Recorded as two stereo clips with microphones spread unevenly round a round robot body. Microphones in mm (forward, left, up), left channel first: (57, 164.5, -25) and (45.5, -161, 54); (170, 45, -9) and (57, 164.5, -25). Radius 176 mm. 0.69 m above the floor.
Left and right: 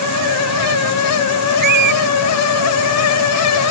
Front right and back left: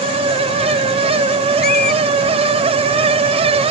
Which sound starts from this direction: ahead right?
A squeak, at 1.6 s.